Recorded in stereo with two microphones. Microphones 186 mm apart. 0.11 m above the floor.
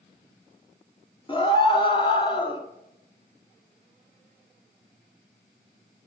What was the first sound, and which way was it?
A scream, 25° left (ahead or behind).